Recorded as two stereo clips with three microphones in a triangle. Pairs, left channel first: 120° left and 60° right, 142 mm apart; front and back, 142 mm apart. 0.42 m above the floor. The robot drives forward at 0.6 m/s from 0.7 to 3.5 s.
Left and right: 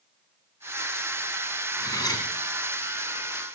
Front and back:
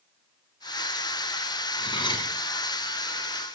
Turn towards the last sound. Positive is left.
turn(degrees=80)